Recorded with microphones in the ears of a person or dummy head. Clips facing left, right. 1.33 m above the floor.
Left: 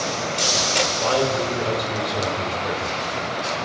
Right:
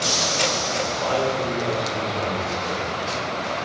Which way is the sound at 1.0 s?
25° left (ahead or behind).